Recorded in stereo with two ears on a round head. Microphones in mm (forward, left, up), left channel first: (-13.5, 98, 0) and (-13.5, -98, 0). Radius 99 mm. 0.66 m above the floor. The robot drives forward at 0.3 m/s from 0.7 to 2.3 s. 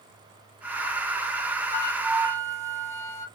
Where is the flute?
15° right (ahead or behind), 2.5 m; by 3.3 s 10° right (ahead or behind), 3 m.